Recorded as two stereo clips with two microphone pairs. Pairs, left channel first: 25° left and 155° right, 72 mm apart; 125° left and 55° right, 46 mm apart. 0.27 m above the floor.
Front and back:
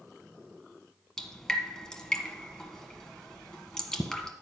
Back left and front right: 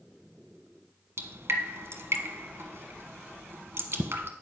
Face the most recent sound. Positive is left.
turn(degrees=-55)